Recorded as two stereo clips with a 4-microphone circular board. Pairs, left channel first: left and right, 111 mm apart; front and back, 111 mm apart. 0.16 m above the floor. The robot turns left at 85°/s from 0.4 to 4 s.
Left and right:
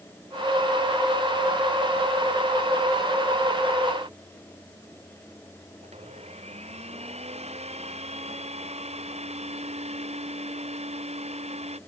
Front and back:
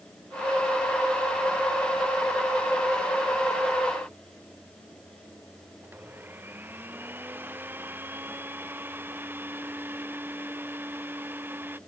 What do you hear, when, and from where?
5.8 s a blender: 105° right